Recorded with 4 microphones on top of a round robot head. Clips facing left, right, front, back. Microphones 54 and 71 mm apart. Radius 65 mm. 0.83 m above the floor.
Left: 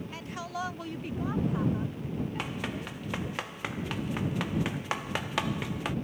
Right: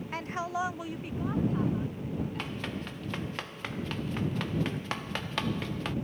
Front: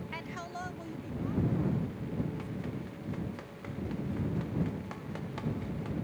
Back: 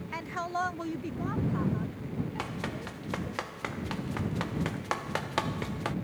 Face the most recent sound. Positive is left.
turn(degrees=170)